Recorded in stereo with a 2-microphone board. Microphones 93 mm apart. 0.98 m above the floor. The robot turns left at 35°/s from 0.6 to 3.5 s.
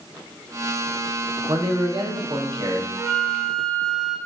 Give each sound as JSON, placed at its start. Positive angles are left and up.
{"t": 1.5, "sound": "a man speaking", "azimuth_deg": -80, "distance_m": 0.8}
{"t": 3.0, "sound": "a flute", "side_deg": -5, "distance_m": 1.0}